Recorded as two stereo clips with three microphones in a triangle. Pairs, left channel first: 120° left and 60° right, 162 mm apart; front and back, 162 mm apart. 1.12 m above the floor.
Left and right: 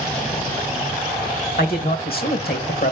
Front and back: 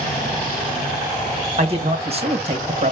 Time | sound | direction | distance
1.6 | a man speaking | 130° left | 1.4 m